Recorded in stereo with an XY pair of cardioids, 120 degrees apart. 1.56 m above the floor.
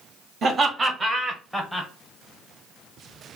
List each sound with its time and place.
0.4 s laughter: 45° right, 1.1 m; by 1.9 s 5° left, 0.9 m